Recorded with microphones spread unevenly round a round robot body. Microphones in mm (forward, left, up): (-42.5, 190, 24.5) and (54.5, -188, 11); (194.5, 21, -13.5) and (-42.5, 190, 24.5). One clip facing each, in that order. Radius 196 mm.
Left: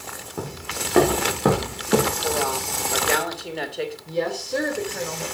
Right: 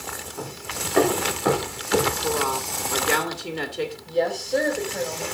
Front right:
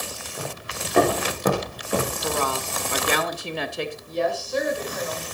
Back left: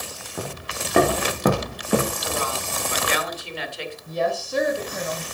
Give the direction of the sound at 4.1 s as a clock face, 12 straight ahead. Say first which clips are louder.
Right 3 dB, back left 2 dB; 6 o'clock.